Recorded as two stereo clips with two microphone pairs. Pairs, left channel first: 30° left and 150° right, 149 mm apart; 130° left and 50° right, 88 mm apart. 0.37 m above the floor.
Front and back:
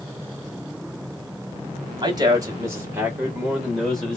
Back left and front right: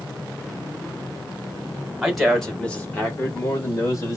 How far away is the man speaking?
About 1.4 m.